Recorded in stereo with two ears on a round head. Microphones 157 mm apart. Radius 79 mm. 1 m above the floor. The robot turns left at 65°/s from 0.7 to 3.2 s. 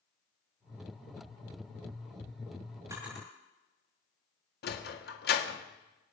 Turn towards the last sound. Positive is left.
turn(degrees=60)  # may be behind; listen again after turning